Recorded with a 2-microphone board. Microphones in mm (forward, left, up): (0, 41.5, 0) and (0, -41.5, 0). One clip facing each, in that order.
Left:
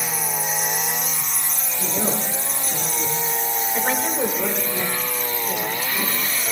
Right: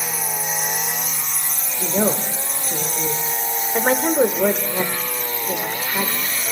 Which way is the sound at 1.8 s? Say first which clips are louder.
Right 5 dB; 50° right (ahead or behind).